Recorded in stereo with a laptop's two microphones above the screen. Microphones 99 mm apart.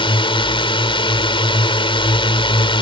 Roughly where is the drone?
Left.